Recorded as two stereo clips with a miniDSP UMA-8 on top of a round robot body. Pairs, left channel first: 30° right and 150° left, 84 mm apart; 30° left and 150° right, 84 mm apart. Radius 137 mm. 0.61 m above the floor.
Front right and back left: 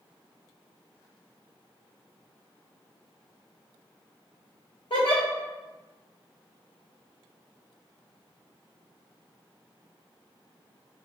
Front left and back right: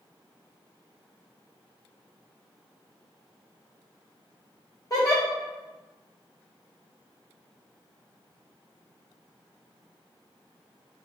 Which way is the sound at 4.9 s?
15° right.